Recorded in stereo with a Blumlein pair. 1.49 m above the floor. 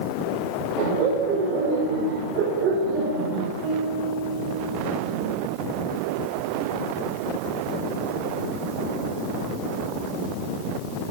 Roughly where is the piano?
Ahead right.